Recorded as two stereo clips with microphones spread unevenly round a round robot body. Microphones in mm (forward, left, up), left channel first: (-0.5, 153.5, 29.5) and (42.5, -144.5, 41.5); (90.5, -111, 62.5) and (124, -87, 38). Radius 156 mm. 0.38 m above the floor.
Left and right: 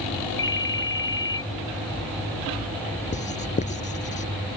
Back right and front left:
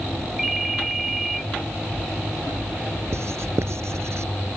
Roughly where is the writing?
Ahead left.